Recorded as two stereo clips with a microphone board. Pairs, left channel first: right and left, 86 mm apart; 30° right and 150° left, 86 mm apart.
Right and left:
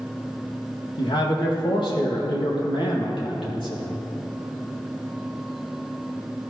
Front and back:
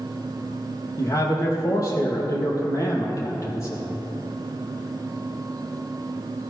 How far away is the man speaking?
About 4.5 m.